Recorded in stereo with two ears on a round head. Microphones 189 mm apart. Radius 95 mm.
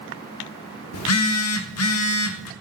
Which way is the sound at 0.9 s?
75° left (ahead or behind).